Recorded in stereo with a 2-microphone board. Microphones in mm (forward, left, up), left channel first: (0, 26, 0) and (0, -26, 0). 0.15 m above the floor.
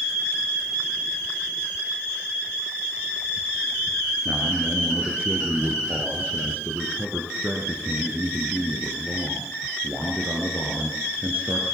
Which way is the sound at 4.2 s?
25° right (ahead or behind).